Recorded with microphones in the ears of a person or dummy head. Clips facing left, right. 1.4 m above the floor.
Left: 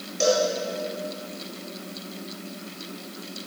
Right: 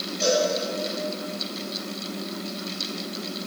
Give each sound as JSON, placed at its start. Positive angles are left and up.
{"t": 0.2, "sound": "a cowbell", "side_deg": 65, "distance_m": 5.5}